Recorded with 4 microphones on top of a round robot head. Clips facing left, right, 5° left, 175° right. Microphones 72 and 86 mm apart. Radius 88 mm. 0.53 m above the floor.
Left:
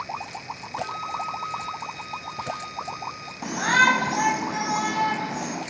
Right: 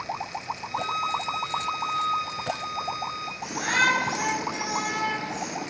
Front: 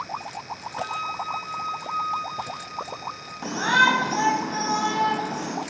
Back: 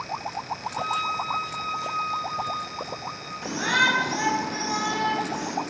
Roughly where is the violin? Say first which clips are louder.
Right 3 dB, back 2 dB; right.